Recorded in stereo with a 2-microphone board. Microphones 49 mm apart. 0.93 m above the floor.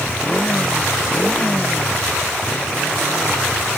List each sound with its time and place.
0.0 s a motorcycle: 20° left (ahead or behind)